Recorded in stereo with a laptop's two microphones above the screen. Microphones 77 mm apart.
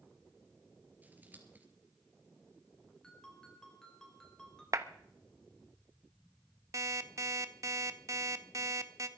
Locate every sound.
1.0 s scissors: 25° right (ahead or behind), 3.5 m
3.0 s a ringtone: 10° left (ahead or behind), 3.5 m
4.7 s a clap: 50° right (ahead or behind), 1.1 m
6.7 s an alarm clock: 45° right (ahead or behind), 0.9 m